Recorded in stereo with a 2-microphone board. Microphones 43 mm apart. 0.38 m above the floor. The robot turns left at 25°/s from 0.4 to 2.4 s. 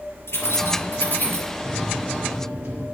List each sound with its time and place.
0.3 s keys jangling: 70° left (ahead or behind), 5 m; by 1.5 s 45° left (ahead or behind), 5 m
1.6 s a microwave: 20° right (ahead or behind), 6 m; by 2.9 s 40° right (ahead or behind), 6 m